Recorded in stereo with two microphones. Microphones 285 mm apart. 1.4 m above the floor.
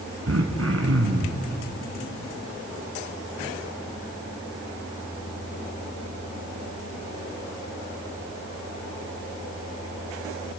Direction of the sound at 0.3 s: 55° right (ahead or behind).